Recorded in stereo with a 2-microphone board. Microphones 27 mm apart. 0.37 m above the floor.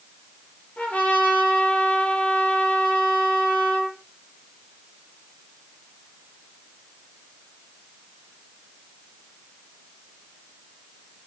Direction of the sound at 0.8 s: 60° left (ahead or behind).